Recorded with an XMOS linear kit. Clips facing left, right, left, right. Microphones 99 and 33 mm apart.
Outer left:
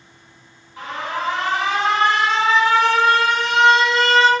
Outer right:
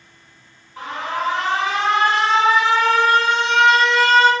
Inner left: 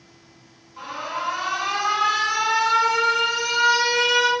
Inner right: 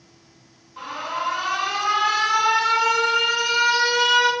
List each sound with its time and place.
0.8 s an alarm: 40° right (ahead or behind), 1.5 m